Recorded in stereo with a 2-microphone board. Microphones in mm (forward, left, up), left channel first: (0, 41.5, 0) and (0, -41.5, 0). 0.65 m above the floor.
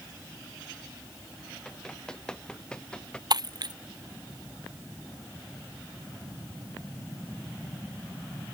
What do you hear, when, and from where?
1.6 s running footsteps: 10° left (ahead or behind)
3.3 s breaking glass: 55° right (ahead or behind)